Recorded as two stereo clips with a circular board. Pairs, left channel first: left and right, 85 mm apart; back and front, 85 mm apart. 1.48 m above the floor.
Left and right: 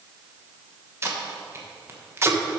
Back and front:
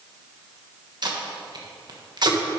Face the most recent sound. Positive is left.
turn(degrees=-30)